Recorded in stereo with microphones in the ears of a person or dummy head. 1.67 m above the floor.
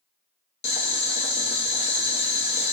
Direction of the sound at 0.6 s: 45° left (ahead or behind).